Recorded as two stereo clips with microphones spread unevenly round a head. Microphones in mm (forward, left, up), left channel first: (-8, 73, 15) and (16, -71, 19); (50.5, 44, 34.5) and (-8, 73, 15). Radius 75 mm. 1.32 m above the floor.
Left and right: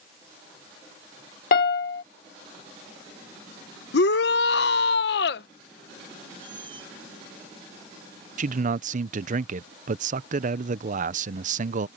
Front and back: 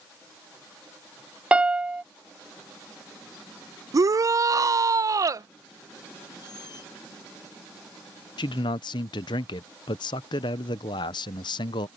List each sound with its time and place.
1.5 s a piano: 75° left
3.9 s a shout: 120° left
6.4 s a squeak: 20° right
8.4 s a man speaking: 45° right